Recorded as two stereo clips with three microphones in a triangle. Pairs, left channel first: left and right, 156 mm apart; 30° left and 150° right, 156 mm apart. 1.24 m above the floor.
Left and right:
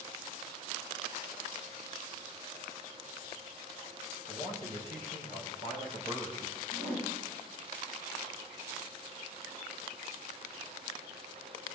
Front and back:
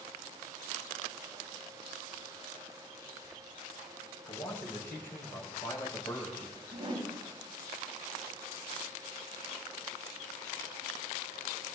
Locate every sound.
4.2 s a man speaking: 50° right, 4.5 m; by 6.6 s 40° right, 6.5 m
6.7 s a whoosh: 95° right, 3 m